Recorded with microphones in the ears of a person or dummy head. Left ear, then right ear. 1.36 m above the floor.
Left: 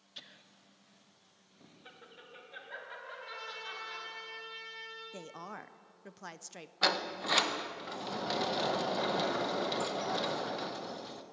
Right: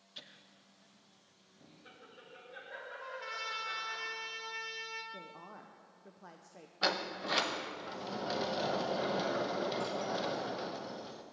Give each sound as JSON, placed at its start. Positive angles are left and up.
{"t": 0.2, "sound": "laughter", "side_deg": 5, "distance_m": 0.8}
{"t": 3.0, "sound": "a trumpet", "side_deg": -85, "distance_m": 2.0}
{"t": 5.1, "sound": "a woman speaking", "side_deg": 70, "distance_m": 0.6}
{"t": 6.8, "sound": "a sliding door", "side_deg": 15, "distance_m": 0.6}